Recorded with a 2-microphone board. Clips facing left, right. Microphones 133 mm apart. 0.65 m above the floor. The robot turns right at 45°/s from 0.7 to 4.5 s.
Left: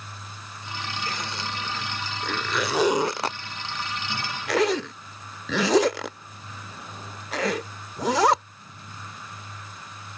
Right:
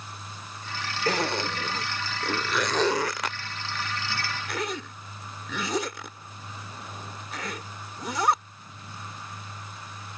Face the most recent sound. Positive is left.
turn(degrees=80)